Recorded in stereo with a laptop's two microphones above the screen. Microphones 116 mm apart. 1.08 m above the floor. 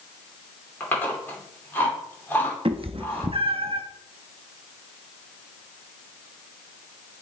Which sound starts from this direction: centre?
Chewing, at 0.8 s.